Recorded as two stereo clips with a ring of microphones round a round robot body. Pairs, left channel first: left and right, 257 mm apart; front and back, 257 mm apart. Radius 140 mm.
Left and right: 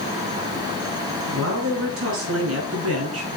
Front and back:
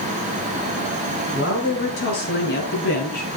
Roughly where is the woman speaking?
Ahead right.